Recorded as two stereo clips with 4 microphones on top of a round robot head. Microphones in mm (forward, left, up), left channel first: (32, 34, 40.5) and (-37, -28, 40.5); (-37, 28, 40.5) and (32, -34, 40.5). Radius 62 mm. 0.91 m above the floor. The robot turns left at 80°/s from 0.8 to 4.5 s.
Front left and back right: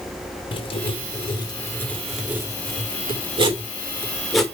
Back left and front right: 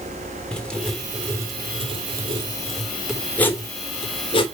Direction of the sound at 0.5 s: 60° left.